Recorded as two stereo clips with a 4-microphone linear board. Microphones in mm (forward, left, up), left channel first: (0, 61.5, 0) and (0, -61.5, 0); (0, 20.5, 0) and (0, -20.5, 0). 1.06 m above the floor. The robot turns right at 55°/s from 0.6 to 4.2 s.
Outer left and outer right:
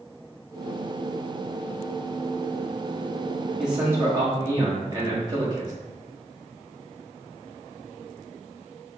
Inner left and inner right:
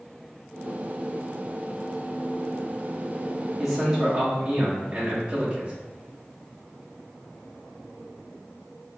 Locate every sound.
3.6 s a man speaking: straight behind, 1.5 m; by 5.7 s 145° right, 1.5 m